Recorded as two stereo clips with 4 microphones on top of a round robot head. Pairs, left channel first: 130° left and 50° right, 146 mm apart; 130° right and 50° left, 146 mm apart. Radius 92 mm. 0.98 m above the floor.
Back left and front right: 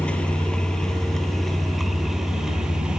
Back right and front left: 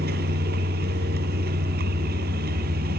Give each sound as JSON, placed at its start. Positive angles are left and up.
{"t": 0.0, "sound": "a vehicle", "azimuth_deg": 50}